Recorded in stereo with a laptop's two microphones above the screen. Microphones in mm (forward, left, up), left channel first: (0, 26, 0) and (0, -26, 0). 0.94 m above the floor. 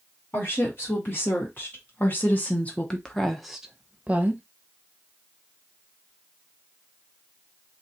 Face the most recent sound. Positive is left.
turn(degrees=-30)  # may be behind; listen again after turning